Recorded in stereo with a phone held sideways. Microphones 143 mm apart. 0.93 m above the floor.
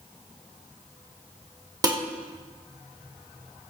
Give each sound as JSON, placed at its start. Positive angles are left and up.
{"t": 1.8, "sound": "dishes clattering", "side_deg": -25, "distance_m": 1.7}